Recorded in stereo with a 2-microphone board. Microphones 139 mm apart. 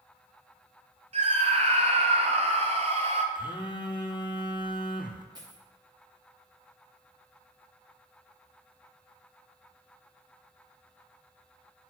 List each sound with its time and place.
1.1 s a scream: 50° right (ahead or behind), 1.8 m
3.4 s a phone buzzing: 35° left (ahead or behind), 1.2 m
5.3 s a dropped coin: 30° right (ahead or behind), 3 m